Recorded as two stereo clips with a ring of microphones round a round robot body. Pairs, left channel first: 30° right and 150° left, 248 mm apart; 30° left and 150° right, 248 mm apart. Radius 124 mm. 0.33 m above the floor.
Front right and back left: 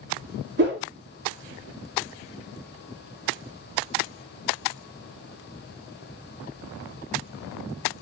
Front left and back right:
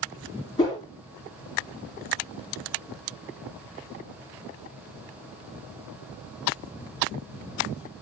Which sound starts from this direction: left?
A whoosh, at 0.6 s.